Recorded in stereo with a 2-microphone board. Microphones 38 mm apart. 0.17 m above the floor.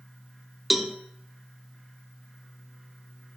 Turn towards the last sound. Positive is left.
turn(degrees=-5)  # may be behind; listen again after turning